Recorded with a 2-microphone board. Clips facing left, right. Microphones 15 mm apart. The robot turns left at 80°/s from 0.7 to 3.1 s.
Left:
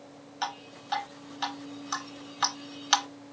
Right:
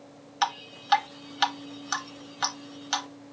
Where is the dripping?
30° right (ahead or behind), 0.9 m; by 3.1 s 35° left (ahead or behind), 0.9 m.